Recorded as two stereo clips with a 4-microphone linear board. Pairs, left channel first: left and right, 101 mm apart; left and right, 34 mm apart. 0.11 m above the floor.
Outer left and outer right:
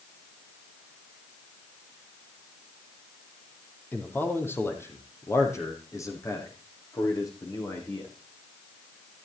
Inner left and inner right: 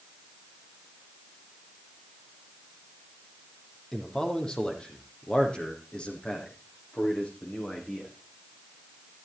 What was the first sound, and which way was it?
A man speaking, 20° left (ahead or behind).